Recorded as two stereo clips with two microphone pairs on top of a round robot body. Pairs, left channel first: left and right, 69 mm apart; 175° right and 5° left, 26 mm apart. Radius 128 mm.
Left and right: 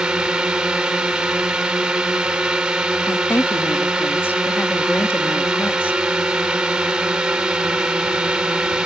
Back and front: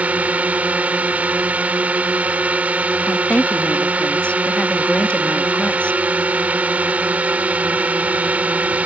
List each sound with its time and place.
0.0 s a drone: 20° right
3.1 s a woman speaking: 150° left